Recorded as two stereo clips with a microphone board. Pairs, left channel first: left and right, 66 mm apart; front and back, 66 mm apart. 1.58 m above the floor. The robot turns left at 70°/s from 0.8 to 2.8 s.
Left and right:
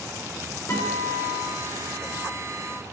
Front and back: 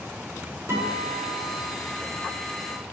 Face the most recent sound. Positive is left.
turn(degrees=-5)